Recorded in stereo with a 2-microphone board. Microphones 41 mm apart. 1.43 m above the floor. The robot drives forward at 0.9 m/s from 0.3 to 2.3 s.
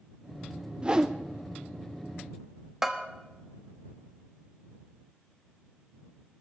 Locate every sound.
0.8 s a whoosh: 25° right (ahead or behind), 0.6 m; by 1.1 s 15° right (ahead or behind), 0.9 m
2.8 s a bell: 10° right (ahead or behind), 1.3 m